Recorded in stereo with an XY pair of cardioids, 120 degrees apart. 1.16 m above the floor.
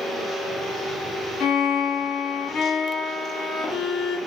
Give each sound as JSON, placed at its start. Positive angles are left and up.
{"t": 1.4, "sound": "a violin", "azimuth_deg": 70, "distance_m": 3.5}